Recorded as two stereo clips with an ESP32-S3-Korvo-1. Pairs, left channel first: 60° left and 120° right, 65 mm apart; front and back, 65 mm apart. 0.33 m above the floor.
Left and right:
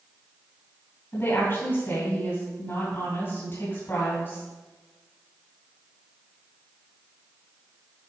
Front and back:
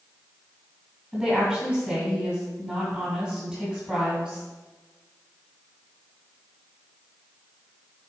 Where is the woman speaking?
90° left, 2.5 m.